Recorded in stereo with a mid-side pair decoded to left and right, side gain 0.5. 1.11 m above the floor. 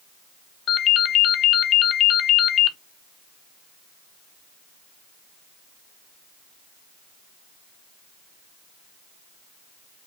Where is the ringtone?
60° left, 0.7 m.